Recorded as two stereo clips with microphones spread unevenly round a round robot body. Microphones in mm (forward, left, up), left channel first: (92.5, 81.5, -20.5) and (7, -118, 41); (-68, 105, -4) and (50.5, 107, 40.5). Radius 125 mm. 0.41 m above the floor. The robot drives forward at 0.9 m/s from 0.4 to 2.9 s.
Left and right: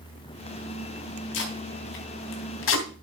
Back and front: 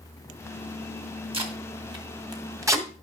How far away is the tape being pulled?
About 3 m.